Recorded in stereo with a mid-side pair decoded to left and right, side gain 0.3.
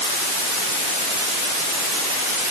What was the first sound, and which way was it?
Only background noise.